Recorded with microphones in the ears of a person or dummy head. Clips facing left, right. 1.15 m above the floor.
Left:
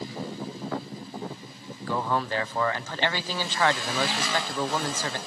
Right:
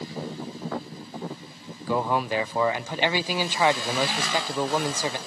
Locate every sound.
1.9 s a man speaking: 15° right (ahead or behind), 0.6 m